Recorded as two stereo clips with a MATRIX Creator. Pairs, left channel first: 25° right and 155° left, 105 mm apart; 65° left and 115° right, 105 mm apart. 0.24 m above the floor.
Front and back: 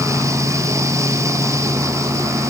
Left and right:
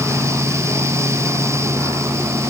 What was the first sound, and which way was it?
Only background noise.